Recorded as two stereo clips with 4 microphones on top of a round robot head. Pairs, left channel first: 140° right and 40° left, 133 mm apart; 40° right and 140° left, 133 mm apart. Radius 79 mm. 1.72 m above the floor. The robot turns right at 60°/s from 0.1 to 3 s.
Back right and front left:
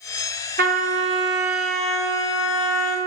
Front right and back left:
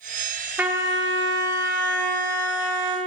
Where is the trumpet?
60° left, 0.7 m; by 3.0 s 155° right, 0.7 m.